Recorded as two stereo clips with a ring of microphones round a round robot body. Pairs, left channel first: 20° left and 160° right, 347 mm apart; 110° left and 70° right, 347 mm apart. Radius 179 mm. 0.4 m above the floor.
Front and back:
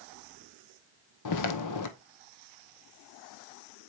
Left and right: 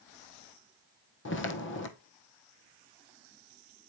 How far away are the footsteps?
About 1.0 m.